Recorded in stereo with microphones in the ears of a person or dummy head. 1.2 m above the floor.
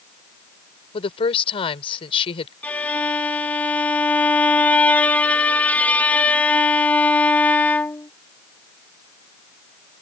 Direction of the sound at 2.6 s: 10° left (ahead or behind).